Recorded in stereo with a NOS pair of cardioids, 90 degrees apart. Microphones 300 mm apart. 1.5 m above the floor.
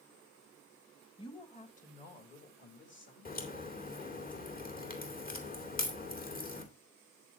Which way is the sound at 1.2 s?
15° left.